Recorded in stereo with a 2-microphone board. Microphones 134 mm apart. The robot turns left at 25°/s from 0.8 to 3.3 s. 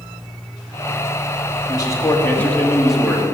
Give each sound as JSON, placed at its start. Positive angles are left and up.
{"t": 1.7, "sound": "a man speaking", "azimuth_deg": 30, "distance_m": 2.0}